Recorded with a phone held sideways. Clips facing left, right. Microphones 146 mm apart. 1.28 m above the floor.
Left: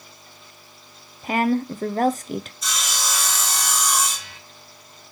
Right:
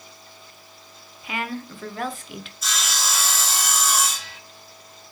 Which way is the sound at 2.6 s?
5° right (ahead or behind).